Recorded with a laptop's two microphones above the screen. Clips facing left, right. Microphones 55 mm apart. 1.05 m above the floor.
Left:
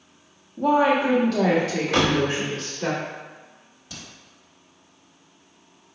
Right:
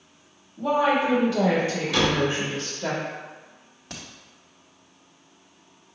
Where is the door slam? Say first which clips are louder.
Left 2 dB; 45° left (ahead or behind), 1.1 m.